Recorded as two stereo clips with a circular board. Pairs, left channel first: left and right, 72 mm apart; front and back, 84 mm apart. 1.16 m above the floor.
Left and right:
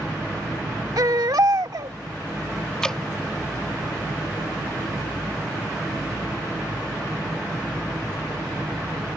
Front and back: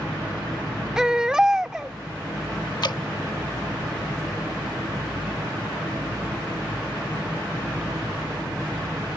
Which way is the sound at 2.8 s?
10° left.